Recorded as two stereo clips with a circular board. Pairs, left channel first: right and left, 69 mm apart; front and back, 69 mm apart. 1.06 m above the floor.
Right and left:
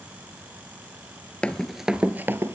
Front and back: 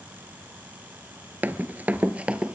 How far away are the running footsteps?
About 1.1 m.